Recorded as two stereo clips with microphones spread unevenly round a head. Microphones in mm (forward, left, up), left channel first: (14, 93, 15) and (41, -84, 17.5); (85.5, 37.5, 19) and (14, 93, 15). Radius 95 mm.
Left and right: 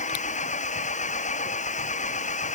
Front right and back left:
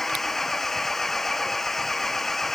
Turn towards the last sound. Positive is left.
turn(degrees=50)